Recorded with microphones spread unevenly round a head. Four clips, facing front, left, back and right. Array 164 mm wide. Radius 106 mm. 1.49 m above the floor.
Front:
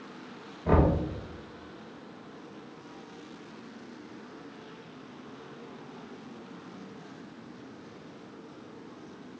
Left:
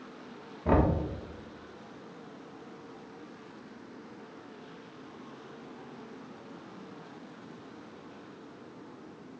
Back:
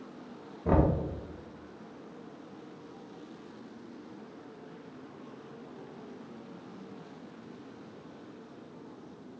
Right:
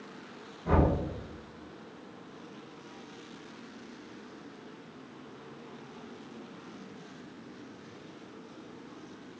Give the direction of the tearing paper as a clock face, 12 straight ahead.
I don't hear tearing paper.